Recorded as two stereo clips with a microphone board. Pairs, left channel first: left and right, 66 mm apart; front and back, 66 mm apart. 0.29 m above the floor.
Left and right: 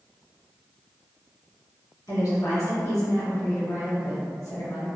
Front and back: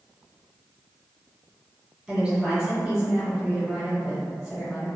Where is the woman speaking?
100° left, 1.9 m.